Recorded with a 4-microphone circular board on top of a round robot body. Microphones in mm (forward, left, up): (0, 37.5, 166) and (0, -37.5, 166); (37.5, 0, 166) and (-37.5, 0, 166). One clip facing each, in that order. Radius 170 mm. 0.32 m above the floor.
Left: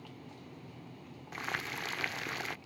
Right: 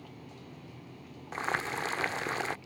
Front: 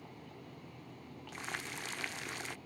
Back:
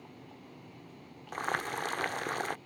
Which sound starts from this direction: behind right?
Boiling, at 1.3 s.